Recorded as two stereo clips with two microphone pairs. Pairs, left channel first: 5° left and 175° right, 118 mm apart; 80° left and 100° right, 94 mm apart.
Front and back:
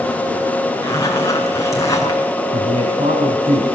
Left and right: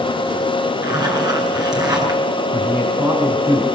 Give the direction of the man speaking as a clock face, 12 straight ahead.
6 o'clock.